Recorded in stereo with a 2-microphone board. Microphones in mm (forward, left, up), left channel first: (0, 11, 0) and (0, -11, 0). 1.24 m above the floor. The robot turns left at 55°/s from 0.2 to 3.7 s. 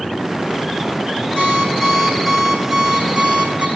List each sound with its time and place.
1.4 s an alarm clock: 60° left, 6 m; by 3.7 s 65° right, 6 m